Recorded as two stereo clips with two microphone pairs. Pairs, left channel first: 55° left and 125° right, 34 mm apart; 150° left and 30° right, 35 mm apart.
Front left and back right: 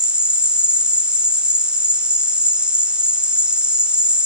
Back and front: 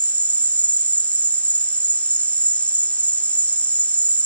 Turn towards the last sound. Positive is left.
turn(degrees=180)